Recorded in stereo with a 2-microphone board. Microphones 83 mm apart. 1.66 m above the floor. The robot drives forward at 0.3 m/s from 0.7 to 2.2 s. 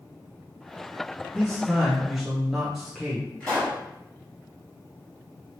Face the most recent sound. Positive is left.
turn(degrees=15)  # may be behind; listen again after turning